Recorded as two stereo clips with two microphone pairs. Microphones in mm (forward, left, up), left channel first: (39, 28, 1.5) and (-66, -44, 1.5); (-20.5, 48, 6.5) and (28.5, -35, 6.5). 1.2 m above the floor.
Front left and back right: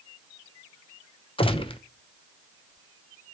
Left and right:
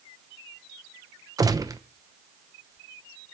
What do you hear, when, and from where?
1.4 s a gunshot: 10° right, 0.8 m